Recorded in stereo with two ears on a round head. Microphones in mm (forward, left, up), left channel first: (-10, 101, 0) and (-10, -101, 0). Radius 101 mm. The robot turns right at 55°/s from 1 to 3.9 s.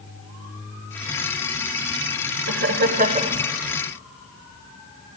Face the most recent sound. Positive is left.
turn(degrees=10)